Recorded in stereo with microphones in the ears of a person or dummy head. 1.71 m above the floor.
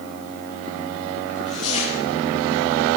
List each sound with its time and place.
1.3 s tearing paper: 30° left (ahead or behind), 9 m